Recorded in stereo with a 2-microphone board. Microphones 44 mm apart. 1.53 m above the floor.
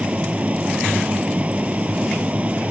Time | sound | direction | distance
0.0 | running water | 30° right (ahead or behind) | ?